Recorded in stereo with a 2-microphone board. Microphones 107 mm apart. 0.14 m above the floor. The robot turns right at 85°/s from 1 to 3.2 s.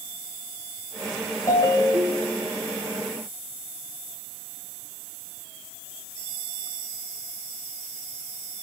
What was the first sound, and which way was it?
A ringtone, 125° left.